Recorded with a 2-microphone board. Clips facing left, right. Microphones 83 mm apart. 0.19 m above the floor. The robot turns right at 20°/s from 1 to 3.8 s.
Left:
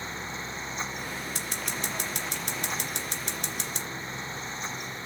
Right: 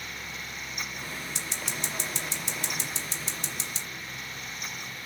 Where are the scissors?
45° left (ahead or behind), 2.5 m; by 3.9 s 60° left (ahead or behind), 2.5 m.